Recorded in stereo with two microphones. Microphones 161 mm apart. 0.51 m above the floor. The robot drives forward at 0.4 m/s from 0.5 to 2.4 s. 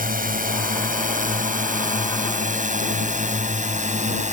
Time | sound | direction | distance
0.0 | a drone | 60° right (ahead or behind) | ?